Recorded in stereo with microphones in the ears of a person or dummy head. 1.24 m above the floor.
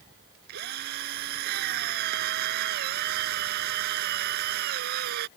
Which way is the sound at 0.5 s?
60° right (ahead or behind).